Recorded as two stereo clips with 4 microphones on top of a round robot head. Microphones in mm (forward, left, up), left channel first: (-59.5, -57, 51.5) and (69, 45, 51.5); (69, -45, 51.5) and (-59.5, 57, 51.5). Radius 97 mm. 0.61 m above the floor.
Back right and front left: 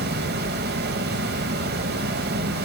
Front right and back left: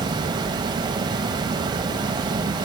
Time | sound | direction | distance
0.0 | running water | 75° left | 1.0 m